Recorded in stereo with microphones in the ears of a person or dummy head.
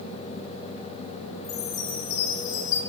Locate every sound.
1.4 s a chime: 55° left (ahead or behind), 2.5 m